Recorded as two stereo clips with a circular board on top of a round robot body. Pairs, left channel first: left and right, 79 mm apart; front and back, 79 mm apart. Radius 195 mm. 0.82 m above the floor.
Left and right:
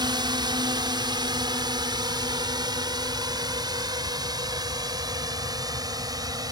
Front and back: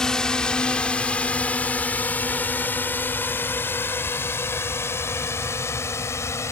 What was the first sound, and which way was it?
A drone, 80° right.